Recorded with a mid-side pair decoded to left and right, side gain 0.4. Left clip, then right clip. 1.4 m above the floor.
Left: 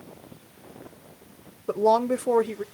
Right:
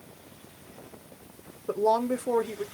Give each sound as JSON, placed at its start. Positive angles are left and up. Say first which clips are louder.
{"t": 1.7, "sound": "a woman speaking", "louder": "left 4 dB", "azimuth_deg": 35, "distance_m": 0.6}